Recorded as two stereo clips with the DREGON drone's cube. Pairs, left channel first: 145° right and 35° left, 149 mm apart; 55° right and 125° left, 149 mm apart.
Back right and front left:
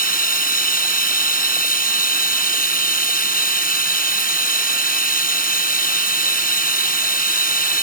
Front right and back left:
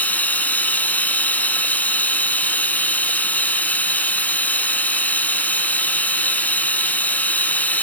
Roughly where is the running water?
Behind right.